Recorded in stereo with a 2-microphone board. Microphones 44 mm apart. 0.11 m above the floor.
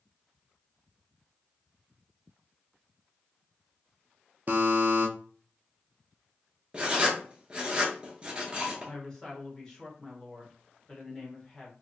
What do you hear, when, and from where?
4.5 s a buzzer: 45° right (ahead or behind), 0.7 m
6.7 s writing: 25° right (ahead or behind), 0.9 m
8.8 s a woman speaking: 15° left (ahead or behind), 1.4 m